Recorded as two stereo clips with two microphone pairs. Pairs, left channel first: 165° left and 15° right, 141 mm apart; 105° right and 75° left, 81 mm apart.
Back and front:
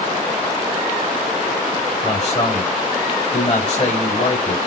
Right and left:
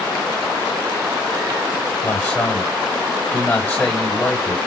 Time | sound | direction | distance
2.0 | a man speaking | 160° right | 2 m